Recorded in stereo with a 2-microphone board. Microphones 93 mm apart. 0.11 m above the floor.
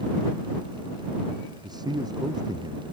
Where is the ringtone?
No ringtone in this recording.